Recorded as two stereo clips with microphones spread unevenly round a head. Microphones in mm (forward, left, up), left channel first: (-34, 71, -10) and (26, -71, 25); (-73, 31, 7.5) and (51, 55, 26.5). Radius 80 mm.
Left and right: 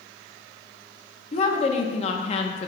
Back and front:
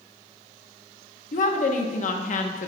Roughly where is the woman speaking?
Behind.